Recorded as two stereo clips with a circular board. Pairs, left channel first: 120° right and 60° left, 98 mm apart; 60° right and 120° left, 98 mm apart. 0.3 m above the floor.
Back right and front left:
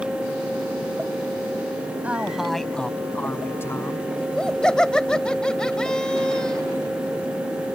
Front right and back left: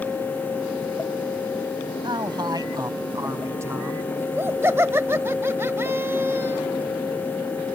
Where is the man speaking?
130° left; by 4.1 s 175° right.